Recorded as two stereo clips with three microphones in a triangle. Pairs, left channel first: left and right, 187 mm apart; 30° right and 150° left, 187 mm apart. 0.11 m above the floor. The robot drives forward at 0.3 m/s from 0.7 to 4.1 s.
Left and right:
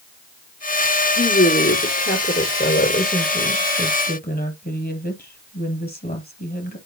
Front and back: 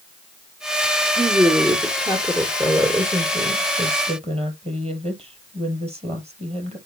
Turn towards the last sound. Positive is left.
turn(degrees=100)